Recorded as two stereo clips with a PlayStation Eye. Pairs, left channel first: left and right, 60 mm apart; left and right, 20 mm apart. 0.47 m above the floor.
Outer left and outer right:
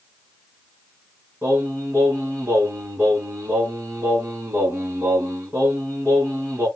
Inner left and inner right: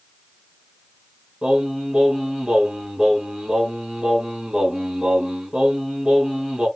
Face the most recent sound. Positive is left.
turn(degrees=-40)  # may be behind; listen again after turning